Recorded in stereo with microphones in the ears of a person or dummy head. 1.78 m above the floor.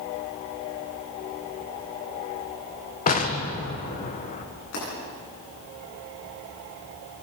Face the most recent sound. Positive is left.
turn(degrees=65)  # may be behind; listen again after turning